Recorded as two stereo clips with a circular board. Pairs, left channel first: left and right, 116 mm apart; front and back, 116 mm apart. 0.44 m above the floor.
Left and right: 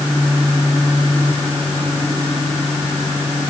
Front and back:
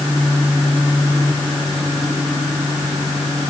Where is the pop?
I don't hear a pop.